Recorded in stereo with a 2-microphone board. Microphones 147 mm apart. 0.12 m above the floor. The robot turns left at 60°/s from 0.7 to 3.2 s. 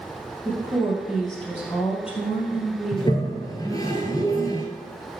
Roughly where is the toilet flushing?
Left.